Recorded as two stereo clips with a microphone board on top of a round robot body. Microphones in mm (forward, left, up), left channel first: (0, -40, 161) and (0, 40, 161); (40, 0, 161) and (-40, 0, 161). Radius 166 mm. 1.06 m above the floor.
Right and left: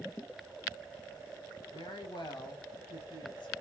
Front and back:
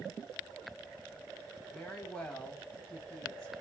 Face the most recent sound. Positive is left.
turn(degrees=-80)